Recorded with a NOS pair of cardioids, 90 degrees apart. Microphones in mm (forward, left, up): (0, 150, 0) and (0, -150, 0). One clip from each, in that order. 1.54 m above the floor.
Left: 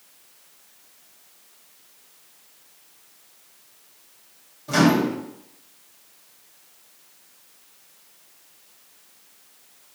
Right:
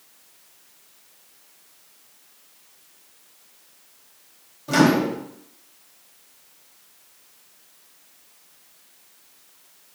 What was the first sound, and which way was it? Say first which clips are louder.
A microwave: right 1 dB; 15° right.